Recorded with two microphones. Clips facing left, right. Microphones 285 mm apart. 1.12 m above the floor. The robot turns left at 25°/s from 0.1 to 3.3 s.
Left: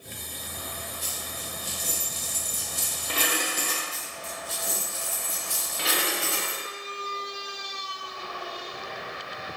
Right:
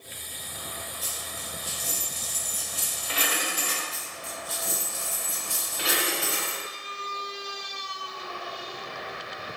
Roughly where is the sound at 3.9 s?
Centre.